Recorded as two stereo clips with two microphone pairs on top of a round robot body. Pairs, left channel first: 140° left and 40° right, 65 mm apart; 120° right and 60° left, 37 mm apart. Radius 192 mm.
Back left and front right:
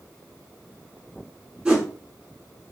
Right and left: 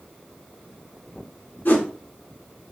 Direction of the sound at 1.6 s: 120° right.